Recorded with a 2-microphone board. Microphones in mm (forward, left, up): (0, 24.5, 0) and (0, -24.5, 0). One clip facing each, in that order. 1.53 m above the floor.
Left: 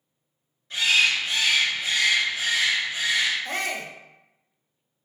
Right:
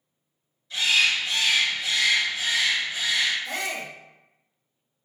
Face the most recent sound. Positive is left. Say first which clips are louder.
# left 1 dB
turn(degrees=45)  # may be behind; listen again after turning